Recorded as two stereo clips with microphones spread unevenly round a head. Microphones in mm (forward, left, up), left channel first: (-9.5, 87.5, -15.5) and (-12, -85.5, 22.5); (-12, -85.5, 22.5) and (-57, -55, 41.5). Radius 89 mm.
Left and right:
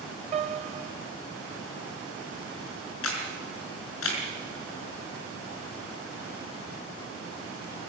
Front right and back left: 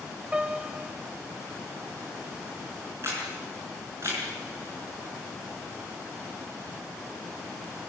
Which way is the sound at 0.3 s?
145° right.